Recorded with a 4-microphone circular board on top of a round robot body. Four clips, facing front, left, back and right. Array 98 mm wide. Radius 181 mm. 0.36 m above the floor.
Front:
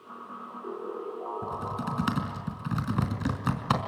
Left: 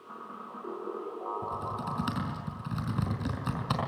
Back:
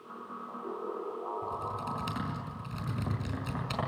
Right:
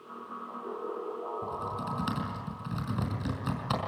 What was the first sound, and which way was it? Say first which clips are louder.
Typing on a keyboard: even, front 2 dB; straight ahead.